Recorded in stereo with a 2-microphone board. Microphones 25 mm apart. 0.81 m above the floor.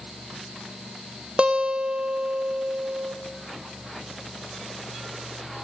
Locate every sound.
1.4 s a guitar: 40° right (ahead or behind), 0.6 m